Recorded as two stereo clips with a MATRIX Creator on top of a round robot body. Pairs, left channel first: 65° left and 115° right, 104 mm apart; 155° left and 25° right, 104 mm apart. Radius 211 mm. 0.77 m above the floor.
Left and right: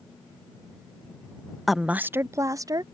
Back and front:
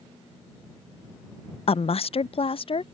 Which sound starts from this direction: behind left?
A woman speaking, at 1.7 s.